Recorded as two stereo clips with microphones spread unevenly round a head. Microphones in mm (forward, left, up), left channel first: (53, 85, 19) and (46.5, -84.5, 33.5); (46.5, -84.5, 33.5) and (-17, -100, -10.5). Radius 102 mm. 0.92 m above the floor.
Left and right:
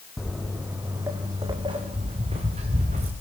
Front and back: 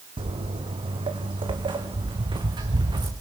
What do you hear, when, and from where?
0.2 s footsteps: straight behind, 1.9 m; by 3.1 s 150° right, 3.5 m